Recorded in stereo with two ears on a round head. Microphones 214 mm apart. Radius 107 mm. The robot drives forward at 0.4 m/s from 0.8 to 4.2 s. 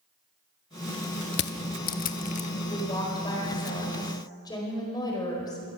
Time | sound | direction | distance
1.3 | crushing | 50° left (ahead or behind) | 0.8 m
2.7 | a woman speaking | 20° left (ahead or behind) | 4 m